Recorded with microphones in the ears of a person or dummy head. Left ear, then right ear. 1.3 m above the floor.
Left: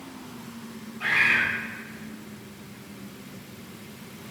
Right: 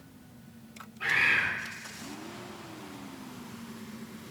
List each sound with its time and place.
1.0 s a bird: centre (ahead or behind), 1.3 m